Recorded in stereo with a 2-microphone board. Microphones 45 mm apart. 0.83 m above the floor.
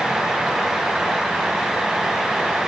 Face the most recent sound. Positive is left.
No sound to turn to.